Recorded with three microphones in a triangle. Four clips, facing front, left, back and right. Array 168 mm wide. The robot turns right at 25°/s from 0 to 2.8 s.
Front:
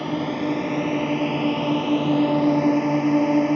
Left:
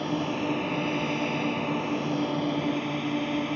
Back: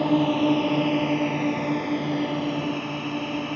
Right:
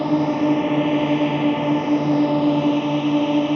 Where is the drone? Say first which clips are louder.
Right 10 dB, back 4 dB; 120° right; by 3.6 s 50° right.